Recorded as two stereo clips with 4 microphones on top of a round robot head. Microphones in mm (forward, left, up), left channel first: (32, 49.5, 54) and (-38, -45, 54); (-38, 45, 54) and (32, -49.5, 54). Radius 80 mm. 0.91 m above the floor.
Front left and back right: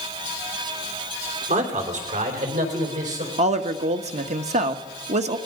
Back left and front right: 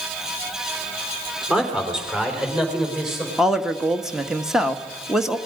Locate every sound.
1.5 s a man speaking: 135° right, 3.5 m; by 3.3 s 140° right, 5 m
3.4 s a woman speaking: 140° right, 1.5 m